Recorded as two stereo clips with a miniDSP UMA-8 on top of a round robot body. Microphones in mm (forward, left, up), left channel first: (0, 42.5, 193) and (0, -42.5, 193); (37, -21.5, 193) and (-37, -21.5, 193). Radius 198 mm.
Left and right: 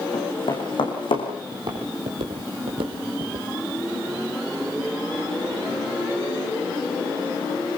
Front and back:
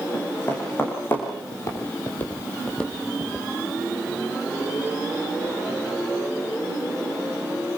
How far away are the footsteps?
About 2.0 m.